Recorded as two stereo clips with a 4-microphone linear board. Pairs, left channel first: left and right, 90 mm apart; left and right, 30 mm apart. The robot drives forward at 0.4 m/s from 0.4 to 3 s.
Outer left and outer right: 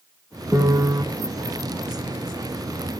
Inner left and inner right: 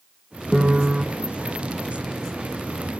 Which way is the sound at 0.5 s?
35° right (ahead or behind).